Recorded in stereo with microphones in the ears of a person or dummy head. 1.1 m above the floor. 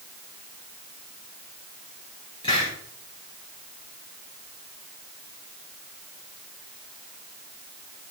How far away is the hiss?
About 3 m.